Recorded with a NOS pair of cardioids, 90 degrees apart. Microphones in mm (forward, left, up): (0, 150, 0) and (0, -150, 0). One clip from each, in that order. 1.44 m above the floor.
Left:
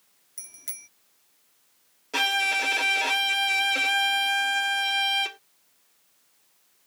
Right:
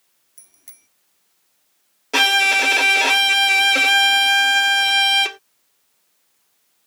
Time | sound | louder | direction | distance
0.4 | a bicycle bell | left 9 dB | 30° left | ?
2.1 | a violin | right 9 dB | 45° right | ?